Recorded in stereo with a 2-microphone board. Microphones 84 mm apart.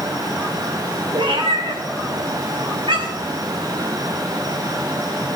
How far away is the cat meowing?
About 3.5 m.